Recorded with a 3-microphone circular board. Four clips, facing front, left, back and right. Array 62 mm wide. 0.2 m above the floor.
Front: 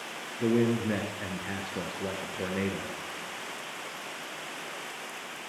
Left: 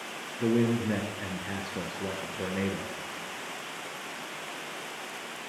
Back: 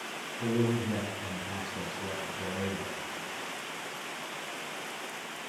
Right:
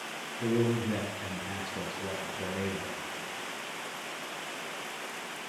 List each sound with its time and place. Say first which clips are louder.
0.4 s a man speaking: left 3 dB, front 4 dB; 35° left, 3.5 m